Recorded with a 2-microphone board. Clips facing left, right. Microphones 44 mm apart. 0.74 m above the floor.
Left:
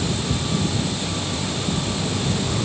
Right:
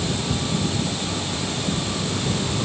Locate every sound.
Only background noise.